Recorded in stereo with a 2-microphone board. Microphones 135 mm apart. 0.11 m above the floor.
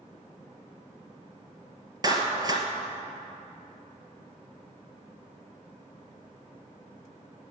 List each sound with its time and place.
2.0 s a clap: 30° right (ahead or behind), 1.6 m